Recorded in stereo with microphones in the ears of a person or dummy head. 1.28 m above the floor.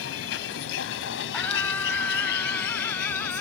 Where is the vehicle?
80° left; by 3.4 s 50° left (ahead or behind).